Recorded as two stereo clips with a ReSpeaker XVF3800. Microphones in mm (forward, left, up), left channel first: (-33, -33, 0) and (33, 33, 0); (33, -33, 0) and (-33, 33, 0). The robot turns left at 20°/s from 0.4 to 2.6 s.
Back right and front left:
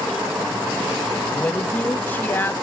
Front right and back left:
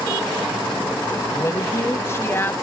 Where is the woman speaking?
65° right, 1.2 m; by 2.5 s 90° right, 1.2 m.